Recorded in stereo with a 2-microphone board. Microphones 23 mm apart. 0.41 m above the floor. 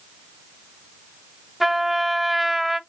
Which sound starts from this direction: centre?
A trumpet, at 1.6 s.